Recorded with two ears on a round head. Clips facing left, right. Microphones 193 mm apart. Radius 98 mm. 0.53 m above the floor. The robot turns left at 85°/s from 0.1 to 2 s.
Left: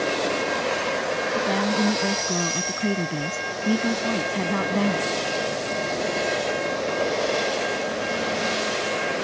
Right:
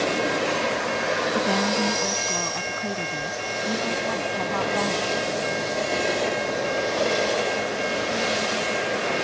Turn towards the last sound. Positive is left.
turn(degrees=145)